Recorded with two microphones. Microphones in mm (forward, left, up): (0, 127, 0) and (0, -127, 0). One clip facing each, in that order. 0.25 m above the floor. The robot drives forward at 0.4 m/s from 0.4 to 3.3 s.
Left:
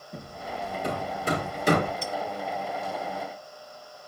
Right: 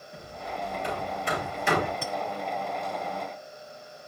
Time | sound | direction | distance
0.1 | hammering | 45° left (ahead or behind) | 4 m
2.0 | a clink | 60° right (ahead or behind) | 1.7 m